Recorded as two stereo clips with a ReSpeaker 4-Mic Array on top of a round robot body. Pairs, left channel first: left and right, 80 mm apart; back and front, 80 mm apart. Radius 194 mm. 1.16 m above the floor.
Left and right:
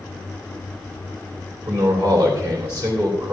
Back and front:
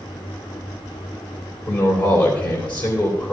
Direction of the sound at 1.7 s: 145° right.